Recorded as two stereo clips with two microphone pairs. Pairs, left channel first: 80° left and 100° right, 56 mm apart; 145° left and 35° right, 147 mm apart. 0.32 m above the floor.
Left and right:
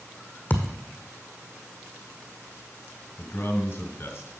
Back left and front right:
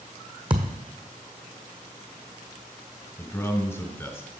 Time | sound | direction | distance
0.5 | a thud | 20° left | 1.1 m
3.2 | a man speaking | 75° left | 1.3 m